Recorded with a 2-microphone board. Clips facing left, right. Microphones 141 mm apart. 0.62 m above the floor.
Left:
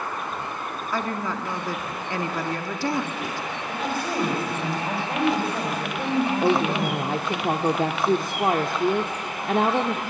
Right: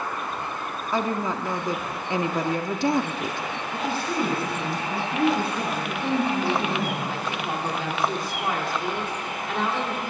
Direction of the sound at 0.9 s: 20° right (ahead or behind).